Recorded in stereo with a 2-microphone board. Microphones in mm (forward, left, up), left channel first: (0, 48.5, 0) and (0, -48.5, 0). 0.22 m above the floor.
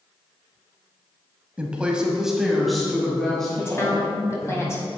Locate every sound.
1.6 s a woman speaking: 15° right (ahead or behind), 1.0 m; by 4.6 s 10° left (ahead or behind), 2.5 m
3.6 s a woman speaking: 30° left (ahead or behind), 1.4 m